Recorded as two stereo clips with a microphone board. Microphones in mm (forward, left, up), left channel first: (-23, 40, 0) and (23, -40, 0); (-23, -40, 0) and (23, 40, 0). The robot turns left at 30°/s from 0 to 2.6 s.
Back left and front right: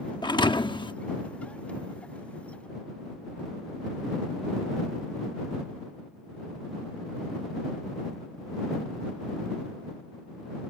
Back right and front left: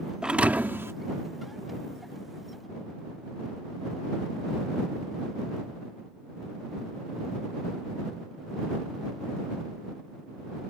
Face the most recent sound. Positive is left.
turn(degrees=65)